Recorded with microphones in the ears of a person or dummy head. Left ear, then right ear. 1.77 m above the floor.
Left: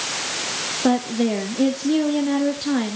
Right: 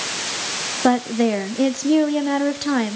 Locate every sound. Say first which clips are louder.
0.8 s a woman speaking: right 3 dB; 30° right (ahead or behind), 0.9 m